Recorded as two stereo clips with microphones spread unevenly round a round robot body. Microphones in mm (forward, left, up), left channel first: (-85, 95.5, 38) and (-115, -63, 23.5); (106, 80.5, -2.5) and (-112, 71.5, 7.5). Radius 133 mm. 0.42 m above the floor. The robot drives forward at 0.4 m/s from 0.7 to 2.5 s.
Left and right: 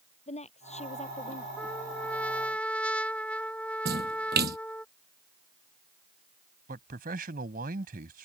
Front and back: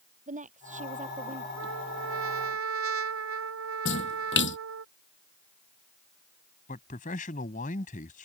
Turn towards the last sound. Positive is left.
turn(degrees=-60)